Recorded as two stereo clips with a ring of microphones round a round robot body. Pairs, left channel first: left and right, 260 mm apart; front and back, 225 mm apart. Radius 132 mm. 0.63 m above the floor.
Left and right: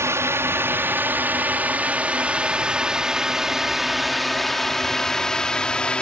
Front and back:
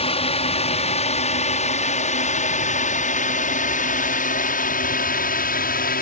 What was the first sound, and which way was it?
A drone, 20° right.